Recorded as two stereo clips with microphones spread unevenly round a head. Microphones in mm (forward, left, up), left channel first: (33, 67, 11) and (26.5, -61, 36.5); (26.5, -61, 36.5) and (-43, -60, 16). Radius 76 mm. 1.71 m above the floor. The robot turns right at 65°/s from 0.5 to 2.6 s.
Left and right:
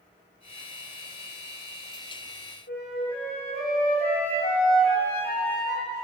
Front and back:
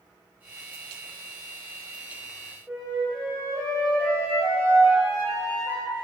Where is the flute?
90° left, 2.5 m.